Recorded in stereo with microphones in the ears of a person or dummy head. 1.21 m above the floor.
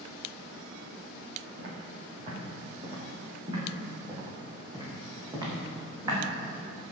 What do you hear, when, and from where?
1.6 s footsteps: 55° right (ahead or behind), 5 m; by 6.2 s 25° right (ahead or behind), 5.5 m